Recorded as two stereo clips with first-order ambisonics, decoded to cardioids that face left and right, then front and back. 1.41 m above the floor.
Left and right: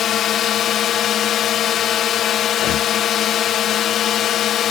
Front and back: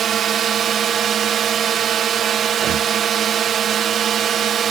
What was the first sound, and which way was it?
A drone, 135° left.